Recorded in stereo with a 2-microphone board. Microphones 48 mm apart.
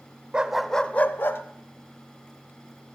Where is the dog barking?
25° right (ahead or behind), 0.8 m; by 1.4 s 55° left (ahead or behind), 1.1 m.